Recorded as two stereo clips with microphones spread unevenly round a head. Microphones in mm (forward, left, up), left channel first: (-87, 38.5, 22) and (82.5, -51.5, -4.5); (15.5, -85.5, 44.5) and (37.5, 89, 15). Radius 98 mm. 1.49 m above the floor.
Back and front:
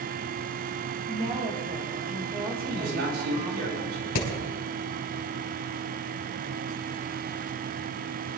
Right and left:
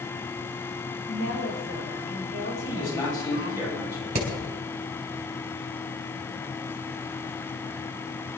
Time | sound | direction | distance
1.1 | a woman speaking | 90° right | 6 m
2.6 | a man speaking | 30° right | 9 m
4.2 | hammering | 140° left | 4 m